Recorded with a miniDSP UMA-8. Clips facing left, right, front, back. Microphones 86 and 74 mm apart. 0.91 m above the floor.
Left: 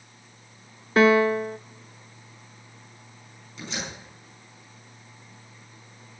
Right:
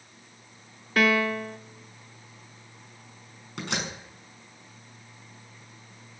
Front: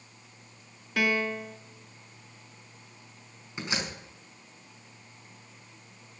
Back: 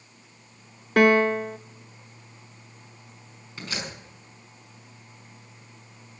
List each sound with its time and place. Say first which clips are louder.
1.0 s a piano: left 6 dB, back 10 dB; 150° left, 0.5 m
3.6 s a door slam: right 3 dB, front 1 dB; 70° right, 5.5 m